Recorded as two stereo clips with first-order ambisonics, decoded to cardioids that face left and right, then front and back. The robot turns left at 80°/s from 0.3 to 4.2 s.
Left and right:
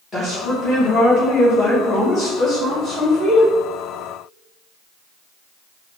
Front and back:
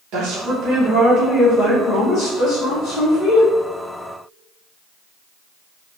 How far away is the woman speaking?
About 0.9 m.